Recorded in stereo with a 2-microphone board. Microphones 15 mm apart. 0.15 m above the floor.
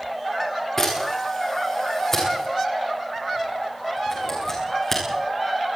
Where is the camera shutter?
30° left (ahead or behind), 9 m.